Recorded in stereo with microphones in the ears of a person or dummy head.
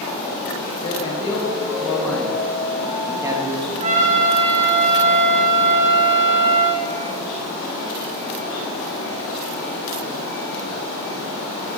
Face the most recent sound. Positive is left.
turn(degrees=-40)  # may be behind; listen again after turning